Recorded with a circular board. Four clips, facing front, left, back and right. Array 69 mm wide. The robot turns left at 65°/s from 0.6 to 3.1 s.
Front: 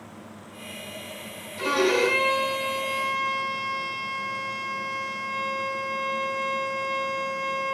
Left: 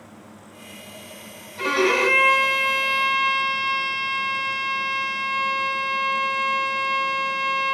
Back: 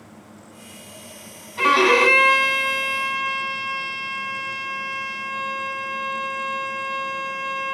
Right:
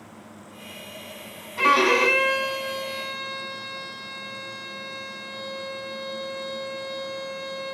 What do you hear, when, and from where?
1.6 s a violin: 150° right, 3 m; by 7.7 s 115° left, 3 m